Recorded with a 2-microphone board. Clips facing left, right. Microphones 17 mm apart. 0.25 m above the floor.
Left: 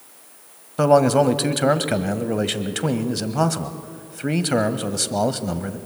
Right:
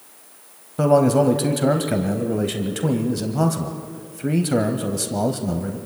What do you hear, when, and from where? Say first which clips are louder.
0.8 s a man speaking: left 1 dB; 25° left (ahead or behind), 1.1 m